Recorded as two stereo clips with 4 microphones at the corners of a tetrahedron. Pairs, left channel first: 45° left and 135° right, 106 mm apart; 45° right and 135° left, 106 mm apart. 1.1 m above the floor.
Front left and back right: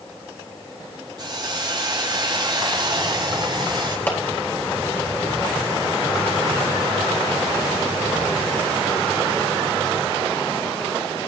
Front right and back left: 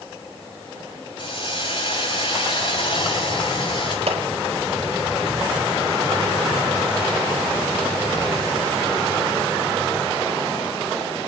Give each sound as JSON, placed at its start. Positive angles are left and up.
{"t": 1.2, "sound": "a hiss", "azimuth_deg": -85, "distance_m": 5.5}
{"t": 4.1, "sound": "a clap", "azimuth_deg": 120, "distance_m": 3.5}